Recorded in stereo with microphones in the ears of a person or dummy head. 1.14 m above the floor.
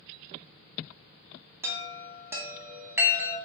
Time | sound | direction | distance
1.6 | a chime | 5° right (ahead or behind) | 0.6 m